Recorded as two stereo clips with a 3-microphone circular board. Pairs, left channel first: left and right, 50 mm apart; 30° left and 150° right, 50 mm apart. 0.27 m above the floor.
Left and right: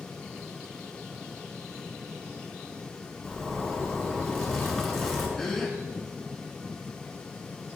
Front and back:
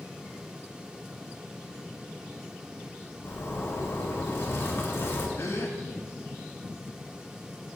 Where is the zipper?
10° left, 1.5 m.